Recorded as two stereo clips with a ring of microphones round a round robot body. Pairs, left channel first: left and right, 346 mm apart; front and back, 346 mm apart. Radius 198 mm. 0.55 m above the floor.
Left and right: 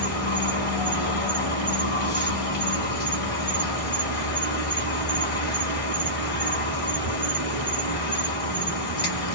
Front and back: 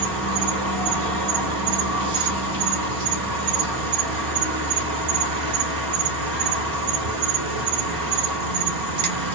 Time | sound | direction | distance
0.0 | an insect | 155° left | 1.3 m